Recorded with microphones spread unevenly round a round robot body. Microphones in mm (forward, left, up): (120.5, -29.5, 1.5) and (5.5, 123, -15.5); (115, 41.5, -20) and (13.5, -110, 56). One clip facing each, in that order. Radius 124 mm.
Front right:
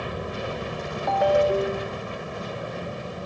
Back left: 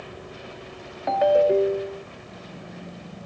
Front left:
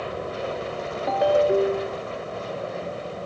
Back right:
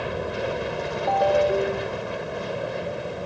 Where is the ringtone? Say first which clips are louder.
Back left 2 dB, front left 1 dB; 85° left.